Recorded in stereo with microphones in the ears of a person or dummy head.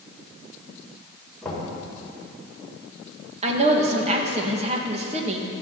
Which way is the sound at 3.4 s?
35° right (ahead or behind).